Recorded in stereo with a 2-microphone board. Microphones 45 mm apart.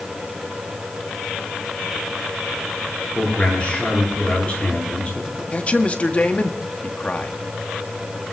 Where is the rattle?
I don't hear a rattle.